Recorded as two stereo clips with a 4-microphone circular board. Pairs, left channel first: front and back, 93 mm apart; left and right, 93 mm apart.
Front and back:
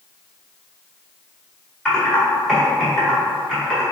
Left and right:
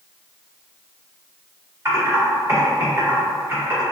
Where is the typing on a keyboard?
80° right, 1.6 m.